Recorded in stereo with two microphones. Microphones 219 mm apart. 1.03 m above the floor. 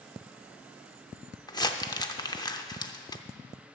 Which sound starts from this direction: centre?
Crumpling, at 1.5 s.